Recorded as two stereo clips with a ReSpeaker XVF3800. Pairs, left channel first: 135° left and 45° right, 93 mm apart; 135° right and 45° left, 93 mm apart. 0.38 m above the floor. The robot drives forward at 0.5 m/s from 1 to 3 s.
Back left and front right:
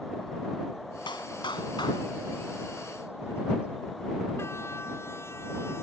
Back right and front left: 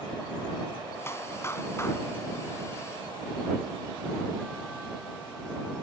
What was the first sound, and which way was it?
A clap, 165° left.